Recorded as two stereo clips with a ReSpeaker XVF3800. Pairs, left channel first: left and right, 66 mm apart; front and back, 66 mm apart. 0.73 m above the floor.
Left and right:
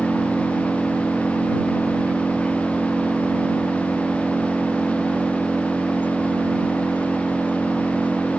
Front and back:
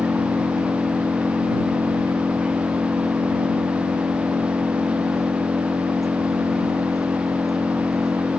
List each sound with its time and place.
0.0 s an engine running: 155° right